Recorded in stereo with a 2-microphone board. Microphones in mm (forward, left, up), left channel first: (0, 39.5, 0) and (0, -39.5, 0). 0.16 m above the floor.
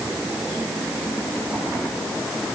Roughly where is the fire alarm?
No fire alarm in this recording.